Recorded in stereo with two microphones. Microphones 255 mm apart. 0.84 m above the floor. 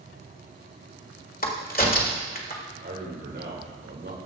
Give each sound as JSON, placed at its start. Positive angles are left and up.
{"t": 1.4, "sound": "a crack", "side_deg": 35, "distance_m": 1.7}
{"t": 2.8, "sound": "a man speaking", "side_deg": -45, "distance_m": 3.0}